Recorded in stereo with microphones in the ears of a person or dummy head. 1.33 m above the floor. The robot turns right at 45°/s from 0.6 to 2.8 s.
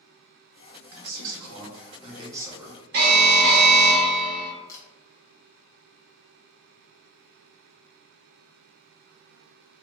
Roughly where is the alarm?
Right.